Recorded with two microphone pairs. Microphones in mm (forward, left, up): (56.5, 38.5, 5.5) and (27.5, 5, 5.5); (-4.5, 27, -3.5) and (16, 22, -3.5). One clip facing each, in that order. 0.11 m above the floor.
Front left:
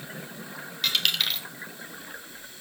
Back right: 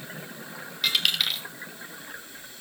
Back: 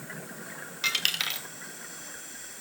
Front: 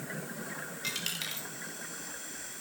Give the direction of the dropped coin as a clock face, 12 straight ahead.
7 o'clock.